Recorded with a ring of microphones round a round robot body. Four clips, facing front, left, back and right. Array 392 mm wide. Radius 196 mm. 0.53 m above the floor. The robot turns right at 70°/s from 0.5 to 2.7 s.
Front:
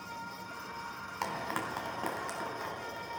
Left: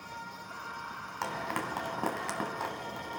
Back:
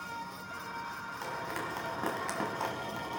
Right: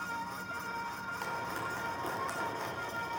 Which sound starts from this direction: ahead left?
Frying, at 1.2 s.